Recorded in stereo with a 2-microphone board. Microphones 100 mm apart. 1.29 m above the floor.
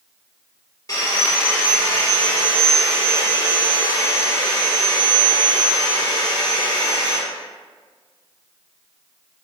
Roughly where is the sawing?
Left.